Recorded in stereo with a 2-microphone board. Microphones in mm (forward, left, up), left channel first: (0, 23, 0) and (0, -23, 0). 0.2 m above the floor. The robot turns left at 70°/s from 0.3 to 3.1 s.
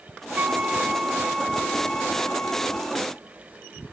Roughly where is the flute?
Right.